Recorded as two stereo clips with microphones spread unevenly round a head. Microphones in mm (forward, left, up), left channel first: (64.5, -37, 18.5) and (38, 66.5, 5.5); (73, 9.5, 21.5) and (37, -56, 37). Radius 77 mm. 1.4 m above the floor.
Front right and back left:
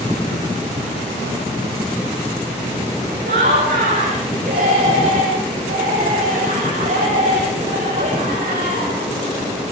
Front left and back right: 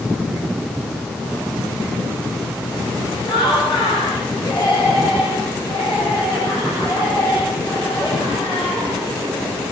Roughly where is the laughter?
Behind left.